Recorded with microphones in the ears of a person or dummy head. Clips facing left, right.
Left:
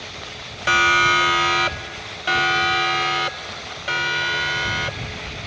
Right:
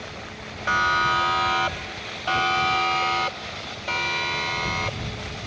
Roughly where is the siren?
Left.